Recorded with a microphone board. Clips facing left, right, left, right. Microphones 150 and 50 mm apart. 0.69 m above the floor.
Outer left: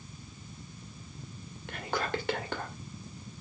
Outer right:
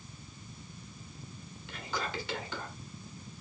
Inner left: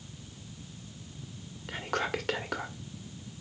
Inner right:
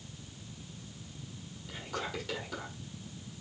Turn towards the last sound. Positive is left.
turn(degrees=55)  # may be behind; listen again after turning